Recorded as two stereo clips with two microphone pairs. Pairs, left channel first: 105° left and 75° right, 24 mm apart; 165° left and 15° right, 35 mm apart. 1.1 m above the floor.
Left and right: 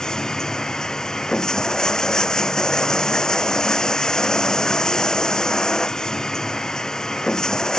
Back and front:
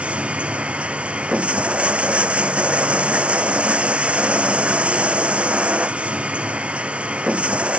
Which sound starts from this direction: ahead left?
Running water, at 0.0 s.